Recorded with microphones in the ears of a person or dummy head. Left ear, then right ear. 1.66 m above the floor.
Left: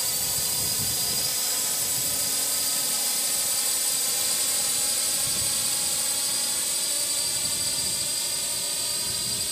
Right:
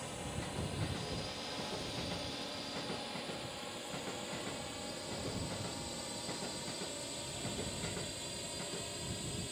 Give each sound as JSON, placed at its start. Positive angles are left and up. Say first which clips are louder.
{"t": 0.0, "sound": "a drone", "louder": "left 14 dB", "side_deg": 75}